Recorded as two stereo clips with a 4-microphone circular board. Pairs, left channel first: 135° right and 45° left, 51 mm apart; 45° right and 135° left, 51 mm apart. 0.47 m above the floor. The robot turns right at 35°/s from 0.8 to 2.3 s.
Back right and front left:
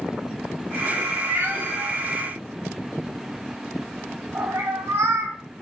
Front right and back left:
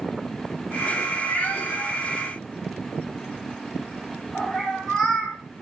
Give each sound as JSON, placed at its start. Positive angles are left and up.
{"t": 1.3, "sound": "a cat meowing", "azimuth_deg": 0, "distance_m": 0.8}